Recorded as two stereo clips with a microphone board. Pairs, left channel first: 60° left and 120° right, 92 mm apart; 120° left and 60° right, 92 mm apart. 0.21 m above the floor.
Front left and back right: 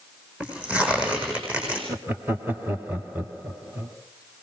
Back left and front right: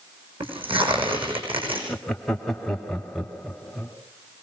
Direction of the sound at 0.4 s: 45° right.